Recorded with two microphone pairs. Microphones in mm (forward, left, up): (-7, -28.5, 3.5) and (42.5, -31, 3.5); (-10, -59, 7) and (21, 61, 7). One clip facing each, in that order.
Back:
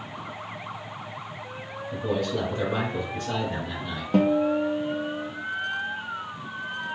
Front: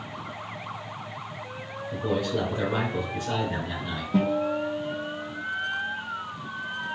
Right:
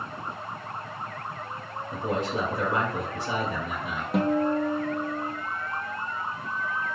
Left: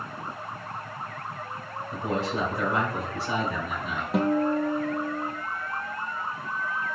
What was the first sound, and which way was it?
A man speaking, 60° right.